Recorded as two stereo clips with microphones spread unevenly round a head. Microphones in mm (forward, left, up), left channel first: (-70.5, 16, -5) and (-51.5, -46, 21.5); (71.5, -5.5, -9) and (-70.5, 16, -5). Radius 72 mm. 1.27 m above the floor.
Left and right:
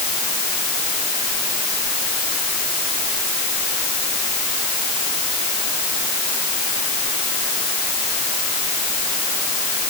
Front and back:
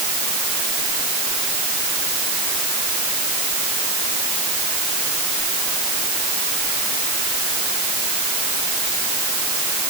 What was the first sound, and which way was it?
Only background noise.